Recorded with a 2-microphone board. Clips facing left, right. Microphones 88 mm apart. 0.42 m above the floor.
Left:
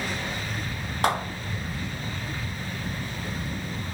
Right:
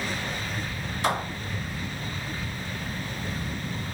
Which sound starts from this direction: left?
A clap, at 1.0 s.